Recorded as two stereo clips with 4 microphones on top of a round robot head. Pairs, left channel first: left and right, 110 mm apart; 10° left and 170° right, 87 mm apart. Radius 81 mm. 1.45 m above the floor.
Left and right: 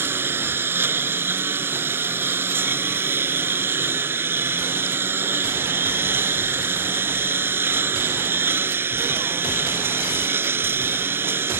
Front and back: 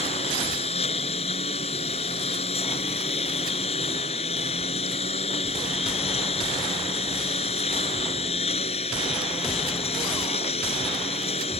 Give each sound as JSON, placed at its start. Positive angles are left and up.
{"t": 0.0, "sound": "a lawn mower", "azimuth_deg": -20}